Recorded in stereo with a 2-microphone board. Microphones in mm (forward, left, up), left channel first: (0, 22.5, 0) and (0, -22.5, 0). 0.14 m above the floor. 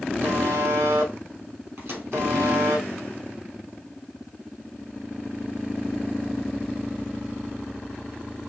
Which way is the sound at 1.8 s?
60° right (ahead or behind).